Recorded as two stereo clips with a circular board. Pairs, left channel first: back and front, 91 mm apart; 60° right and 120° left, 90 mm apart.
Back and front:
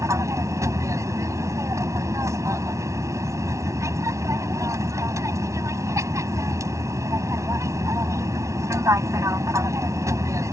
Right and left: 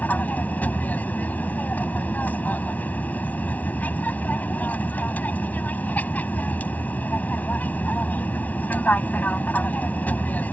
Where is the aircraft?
Straight ahead.